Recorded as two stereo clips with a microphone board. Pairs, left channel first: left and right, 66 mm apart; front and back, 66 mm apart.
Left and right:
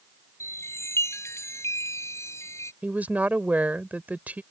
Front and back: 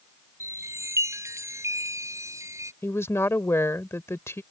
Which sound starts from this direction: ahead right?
A woman speaking, at 2.8 s.